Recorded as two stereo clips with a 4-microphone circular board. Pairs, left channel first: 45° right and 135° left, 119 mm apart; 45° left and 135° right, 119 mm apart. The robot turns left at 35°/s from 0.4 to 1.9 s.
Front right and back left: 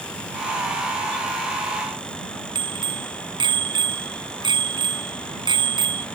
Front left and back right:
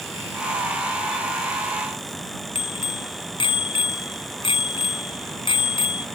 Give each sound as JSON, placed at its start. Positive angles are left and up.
{"t": 2.5, "sound": "a bicycle bell", "azimuth_deg": 85}